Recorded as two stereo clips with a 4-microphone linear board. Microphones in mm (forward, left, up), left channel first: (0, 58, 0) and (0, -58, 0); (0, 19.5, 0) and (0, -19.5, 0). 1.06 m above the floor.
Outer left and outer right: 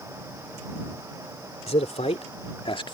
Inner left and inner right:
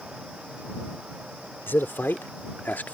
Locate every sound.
1.7 s a man speaking: 80° left; by 2.9 s 50° left (ahead or behind)